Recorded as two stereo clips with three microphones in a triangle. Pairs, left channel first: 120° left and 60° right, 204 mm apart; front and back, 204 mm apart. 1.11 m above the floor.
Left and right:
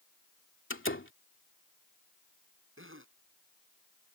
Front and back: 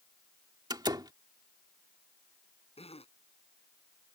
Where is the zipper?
60° right.